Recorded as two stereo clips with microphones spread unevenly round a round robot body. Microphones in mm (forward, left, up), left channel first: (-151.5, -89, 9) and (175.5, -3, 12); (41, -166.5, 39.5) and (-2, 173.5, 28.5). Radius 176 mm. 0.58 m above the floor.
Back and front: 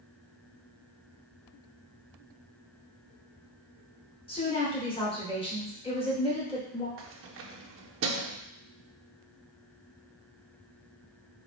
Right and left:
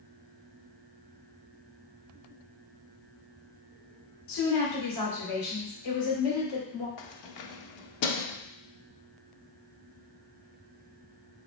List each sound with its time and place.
4.3 s a woman speaking: 90° right, 2.5 m
7.0 s keys jangling: 40° right, 0.7 m